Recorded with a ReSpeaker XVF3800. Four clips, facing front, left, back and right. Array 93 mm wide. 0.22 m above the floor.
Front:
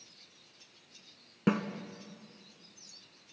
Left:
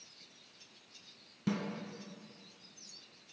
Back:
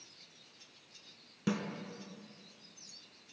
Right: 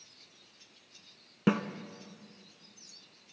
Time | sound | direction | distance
1.5 | a snare drum | 55° right | 0.6 m